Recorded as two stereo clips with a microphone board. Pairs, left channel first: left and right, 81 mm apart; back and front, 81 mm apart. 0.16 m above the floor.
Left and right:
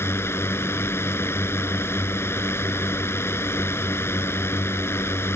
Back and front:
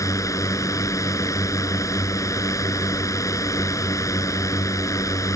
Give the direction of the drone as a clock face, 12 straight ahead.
7 o'clock.